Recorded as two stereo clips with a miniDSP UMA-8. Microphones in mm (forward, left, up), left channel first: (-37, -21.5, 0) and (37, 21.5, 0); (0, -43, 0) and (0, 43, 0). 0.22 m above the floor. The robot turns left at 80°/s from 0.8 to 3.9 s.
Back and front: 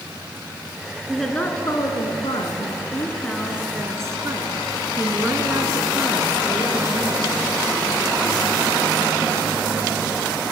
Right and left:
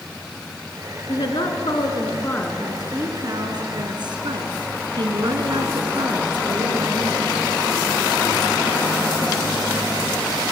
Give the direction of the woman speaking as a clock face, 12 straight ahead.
2 o'clock.